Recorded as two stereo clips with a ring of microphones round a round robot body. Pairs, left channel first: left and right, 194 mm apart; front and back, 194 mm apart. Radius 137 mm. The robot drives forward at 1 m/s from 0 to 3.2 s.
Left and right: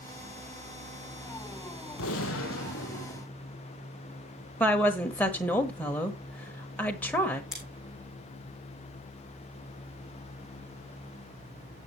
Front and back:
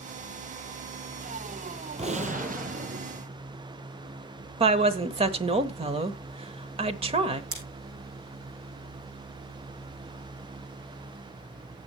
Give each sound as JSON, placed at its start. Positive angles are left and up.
{"t": 2.0, "sound": "a gunshot", "azimuth_deg": 120, "distance_m": 1.9}
{"t": 4.6, "sound": "a woman speaking", "azimuth_deg": 165, "distance_m": 1.1}
{"t": 7.5, "sound": "scissors", "azimuth_deg": 180, "distance_m": 4.0}